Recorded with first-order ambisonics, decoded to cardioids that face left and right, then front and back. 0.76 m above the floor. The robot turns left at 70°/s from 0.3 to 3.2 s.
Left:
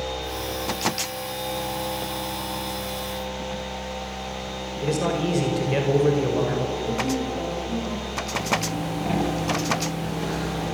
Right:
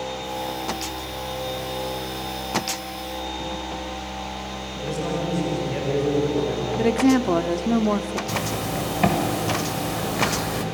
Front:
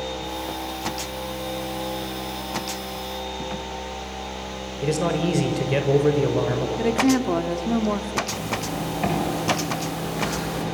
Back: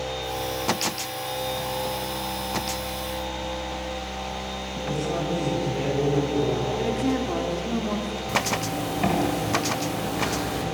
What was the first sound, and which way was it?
A man speaking, 25° left.